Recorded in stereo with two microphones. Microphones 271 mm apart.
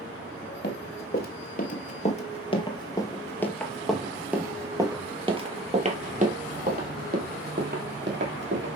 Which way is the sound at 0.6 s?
40° left (ahead or behind).